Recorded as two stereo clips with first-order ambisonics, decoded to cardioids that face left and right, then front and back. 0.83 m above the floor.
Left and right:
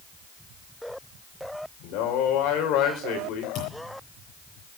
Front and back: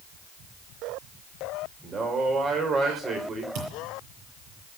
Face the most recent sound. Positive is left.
turn(degrees=140)